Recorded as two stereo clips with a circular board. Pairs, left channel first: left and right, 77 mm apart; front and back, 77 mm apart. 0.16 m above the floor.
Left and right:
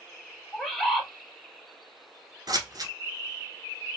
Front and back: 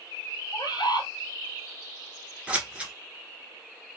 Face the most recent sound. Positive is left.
turn(degrees=-110)